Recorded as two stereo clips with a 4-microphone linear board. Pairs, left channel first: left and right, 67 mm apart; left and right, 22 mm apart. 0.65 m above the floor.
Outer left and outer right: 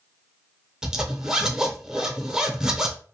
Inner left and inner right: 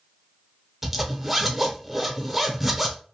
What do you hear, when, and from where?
0.8 s a zipper: 10° right (ahead or behind), 0.7 m